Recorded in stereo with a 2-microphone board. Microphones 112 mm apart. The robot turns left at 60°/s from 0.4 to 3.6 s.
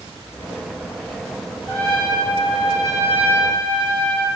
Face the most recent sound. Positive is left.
turn(degrees=-140)